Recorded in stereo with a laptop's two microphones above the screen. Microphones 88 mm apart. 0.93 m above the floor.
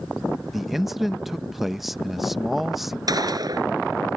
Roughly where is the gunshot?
Right.